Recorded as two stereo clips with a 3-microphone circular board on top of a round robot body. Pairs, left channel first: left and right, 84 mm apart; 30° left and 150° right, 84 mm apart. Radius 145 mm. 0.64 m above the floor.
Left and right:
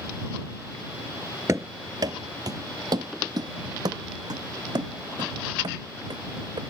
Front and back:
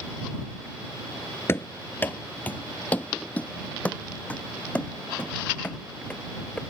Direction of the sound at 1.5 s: 30° right.